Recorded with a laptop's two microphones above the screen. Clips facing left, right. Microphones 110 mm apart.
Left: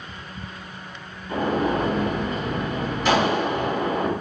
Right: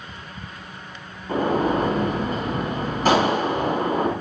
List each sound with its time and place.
1.3 s a gunshot: 45° right (ahead or behind), 4.5 m